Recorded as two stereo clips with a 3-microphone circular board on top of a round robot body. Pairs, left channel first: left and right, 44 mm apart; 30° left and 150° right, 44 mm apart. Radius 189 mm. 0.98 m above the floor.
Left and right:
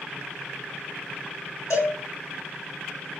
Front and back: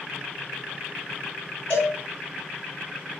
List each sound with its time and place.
1.7 s a cowbell: 90° left, 1.6 m